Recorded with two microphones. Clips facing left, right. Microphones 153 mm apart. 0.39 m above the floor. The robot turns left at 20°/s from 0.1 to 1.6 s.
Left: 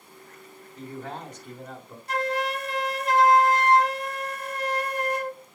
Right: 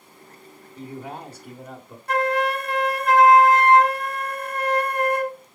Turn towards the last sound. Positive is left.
turn(degrees=-60)  # may be behind; listen again after turning